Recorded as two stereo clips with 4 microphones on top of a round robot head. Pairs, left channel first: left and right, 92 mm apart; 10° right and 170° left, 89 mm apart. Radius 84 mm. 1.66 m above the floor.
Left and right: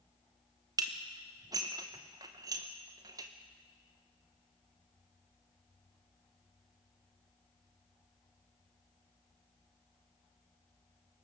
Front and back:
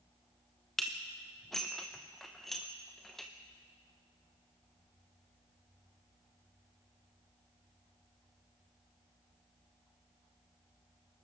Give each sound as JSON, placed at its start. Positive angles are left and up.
{"t": 0.8, "sound": "dishes clattering", "azimuth_deg": -95, "distance_m": 0.8}